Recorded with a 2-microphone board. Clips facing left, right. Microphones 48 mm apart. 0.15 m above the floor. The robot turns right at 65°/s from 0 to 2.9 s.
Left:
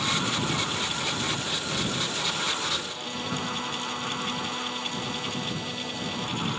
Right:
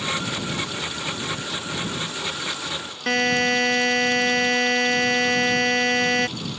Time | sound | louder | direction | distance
3.1 | a buzzer | right 14 dB | 75° right (ahead or behind) | ?